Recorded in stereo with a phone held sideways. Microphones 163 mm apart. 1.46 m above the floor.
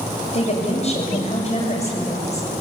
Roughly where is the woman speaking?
Left.